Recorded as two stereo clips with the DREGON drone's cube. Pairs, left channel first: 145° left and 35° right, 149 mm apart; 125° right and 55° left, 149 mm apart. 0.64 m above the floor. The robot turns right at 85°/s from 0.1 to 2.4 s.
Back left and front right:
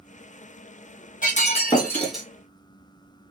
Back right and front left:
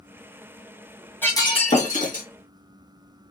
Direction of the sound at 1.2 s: 160° left.